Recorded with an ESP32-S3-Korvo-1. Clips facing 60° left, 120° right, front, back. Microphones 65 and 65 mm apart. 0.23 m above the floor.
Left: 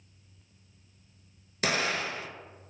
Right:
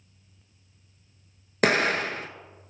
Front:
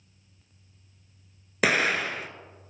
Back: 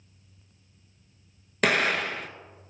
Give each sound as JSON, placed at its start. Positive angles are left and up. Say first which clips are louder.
{"t": 1.6, "sound": "an explosion", "louder": "right 7 dB, even", "azimuth_deg": -85, "distance_m": 0.6}